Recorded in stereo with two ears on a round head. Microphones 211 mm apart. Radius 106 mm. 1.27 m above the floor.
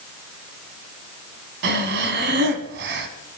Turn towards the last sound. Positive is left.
turn(degrees=-50)  # may be behind; listen again after turning